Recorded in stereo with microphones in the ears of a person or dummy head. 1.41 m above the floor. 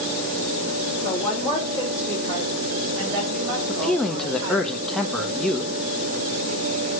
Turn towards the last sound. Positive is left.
turn(degrees=5)  # may be behind; listen again after turning